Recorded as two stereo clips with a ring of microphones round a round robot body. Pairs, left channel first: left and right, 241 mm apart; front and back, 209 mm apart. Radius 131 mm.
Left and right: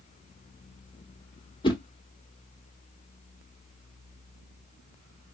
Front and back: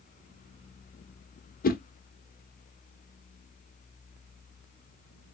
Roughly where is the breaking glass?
I don't hear breaking glass.